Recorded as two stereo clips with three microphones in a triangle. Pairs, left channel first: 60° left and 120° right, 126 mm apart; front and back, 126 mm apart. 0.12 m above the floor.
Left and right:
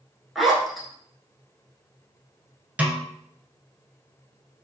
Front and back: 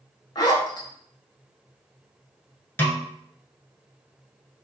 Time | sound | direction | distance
0.3 | a zipper | 30° right | 0.6 m
2.8 | a snare drum | 55° right | 0.7 m